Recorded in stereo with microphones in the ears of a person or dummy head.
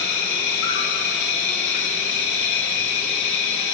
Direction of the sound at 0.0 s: 70° left (ahead or behind).